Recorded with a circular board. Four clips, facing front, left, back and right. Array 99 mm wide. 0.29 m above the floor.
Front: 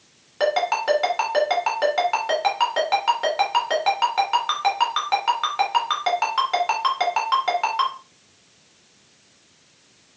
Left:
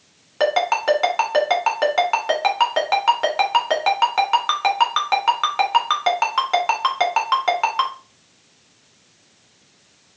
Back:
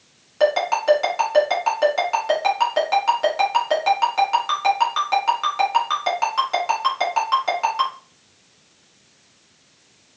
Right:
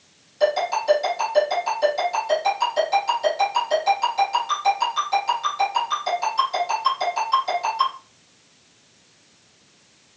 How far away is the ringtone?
About 2 m.